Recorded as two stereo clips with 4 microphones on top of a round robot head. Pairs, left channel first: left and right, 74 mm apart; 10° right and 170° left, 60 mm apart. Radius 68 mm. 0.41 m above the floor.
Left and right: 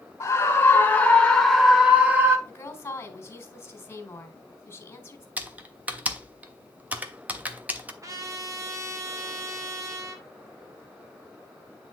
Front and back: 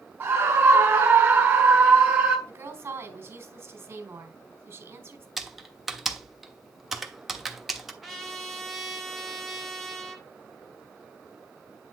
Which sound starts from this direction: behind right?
Typing on a keyboard, at 5.4 s.